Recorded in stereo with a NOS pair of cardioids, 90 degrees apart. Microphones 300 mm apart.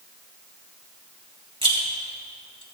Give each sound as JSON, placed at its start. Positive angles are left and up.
{"t": 1.6, "sound": "a rattle", "azimuth_deg": -20, "distance_m": 2.5}